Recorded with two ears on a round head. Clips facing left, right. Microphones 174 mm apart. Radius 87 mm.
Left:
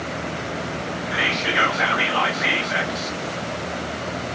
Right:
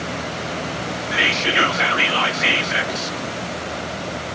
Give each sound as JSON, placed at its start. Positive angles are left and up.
{"t": 1.1, "sound": "whispering", "side_deg": -35, "distance_m": 0.9}